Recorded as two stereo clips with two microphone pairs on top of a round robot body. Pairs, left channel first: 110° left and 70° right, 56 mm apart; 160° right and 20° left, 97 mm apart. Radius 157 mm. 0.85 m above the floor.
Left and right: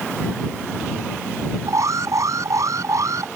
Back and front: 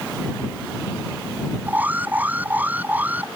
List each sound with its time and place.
1.7 s an alarm: 55° right